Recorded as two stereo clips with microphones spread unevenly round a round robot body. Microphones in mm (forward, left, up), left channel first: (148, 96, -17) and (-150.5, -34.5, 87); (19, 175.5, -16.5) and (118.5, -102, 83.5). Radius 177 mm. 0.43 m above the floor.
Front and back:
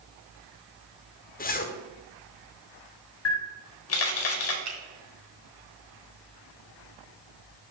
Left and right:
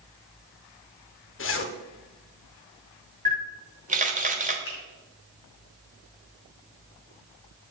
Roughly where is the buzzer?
I don't hear a buzzer.